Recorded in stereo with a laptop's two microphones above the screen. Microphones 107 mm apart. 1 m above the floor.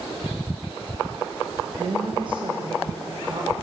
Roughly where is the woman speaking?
Right.